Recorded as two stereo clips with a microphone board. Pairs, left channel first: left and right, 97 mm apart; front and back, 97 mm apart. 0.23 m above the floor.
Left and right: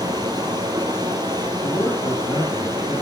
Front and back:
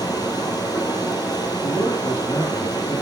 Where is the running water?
45° right, 3 m.